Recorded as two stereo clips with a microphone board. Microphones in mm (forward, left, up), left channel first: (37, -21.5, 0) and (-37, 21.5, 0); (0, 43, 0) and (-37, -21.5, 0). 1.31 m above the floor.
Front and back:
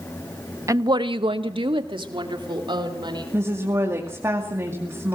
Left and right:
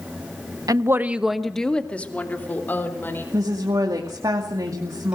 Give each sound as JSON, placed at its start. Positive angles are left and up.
{"t": 0.7, "sound": "a woman speaking", "azimuth_deg": -155, "distance_m": 0.9}
{"t": 3.3, "sound": "a woman speaking", "azimuth_deg": -155, "distance_m": 2.5}